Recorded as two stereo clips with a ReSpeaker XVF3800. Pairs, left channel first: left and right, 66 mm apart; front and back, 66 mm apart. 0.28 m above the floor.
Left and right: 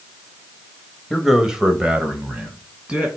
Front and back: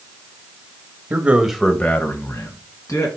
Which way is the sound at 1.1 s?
175° right.